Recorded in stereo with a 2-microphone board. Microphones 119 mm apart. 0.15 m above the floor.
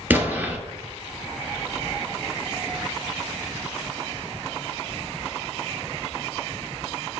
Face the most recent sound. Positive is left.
turn(degrees=-15)  # may be behind; listen again after turning